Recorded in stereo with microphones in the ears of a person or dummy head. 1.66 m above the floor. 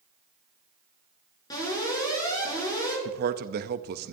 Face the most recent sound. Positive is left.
turn(degrees=-50)  # may be behind; listen again after turning